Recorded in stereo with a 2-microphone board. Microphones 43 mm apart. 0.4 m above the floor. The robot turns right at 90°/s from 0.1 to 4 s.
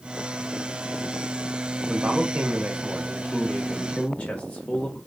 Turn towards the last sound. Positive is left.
turn(degrees=30)  # may be behind; listen again after turning